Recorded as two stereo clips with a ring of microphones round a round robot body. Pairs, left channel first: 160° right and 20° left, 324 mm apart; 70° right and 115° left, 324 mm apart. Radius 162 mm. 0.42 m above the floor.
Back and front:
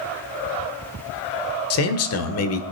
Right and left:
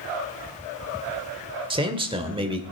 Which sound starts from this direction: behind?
A man speaking, at 1.7 s.